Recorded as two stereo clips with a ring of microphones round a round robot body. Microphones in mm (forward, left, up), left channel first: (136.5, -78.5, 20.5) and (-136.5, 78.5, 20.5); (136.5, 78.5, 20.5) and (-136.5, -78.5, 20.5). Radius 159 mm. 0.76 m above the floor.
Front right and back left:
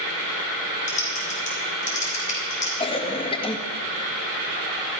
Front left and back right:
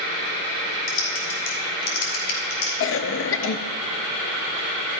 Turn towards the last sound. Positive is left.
turn(degrees=35)